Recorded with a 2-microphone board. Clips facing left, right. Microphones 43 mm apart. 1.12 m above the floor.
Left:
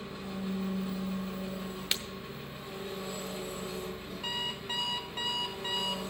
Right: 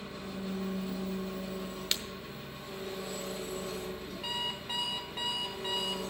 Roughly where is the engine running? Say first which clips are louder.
Left 1 dB; centre.